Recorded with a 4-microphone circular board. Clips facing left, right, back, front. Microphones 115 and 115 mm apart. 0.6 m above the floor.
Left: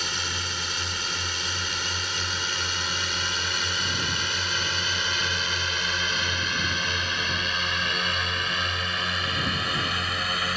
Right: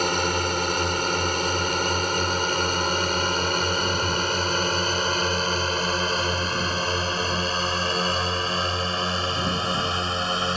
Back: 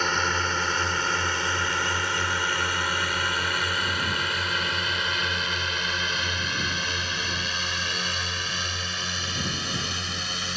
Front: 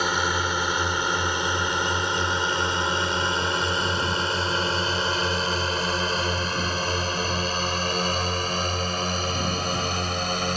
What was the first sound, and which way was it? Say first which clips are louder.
A drone: right 11 dB, front 2 dB; 75° right.